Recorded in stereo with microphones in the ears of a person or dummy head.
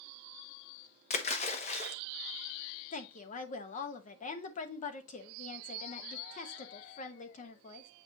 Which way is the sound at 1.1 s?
35° left (ahead or behind).